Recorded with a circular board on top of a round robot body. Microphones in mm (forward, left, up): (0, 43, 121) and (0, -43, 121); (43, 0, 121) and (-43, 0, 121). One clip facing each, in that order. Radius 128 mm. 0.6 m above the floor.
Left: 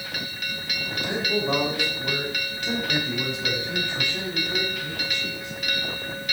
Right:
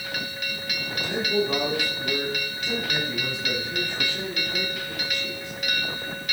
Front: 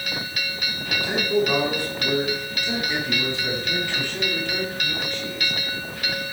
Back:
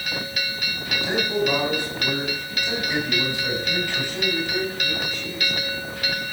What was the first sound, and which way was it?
A man speaking, 115° left.